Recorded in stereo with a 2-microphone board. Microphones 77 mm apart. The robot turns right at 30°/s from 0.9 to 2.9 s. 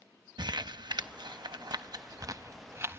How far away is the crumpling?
About 0.6 m.